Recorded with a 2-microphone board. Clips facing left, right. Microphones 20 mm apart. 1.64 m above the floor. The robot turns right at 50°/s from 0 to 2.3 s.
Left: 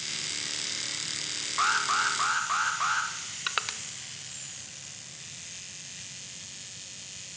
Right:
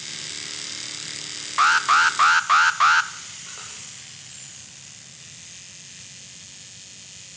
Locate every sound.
1.6 s an alarm: 140° right, 0.5 m; by 3.1 s 105° right, 0.5 m
3.5 s crushing: 90° left, 0.9 m